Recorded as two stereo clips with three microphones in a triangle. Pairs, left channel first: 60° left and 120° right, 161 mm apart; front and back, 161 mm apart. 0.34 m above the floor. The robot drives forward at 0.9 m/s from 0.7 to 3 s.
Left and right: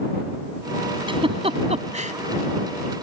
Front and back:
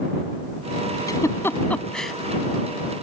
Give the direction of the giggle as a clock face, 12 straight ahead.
2 o'clock.